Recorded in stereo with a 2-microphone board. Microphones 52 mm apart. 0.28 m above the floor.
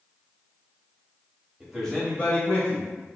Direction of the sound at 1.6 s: 10° right (ahead or behind).